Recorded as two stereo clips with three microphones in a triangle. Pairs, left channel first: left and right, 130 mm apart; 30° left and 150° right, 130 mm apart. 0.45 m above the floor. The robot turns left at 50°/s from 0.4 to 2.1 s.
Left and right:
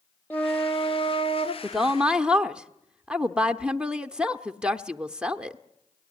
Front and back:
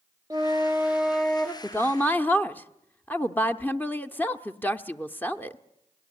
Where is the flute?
160° left, 0.9 m; by 1.5 s 105° left, 0.9 m.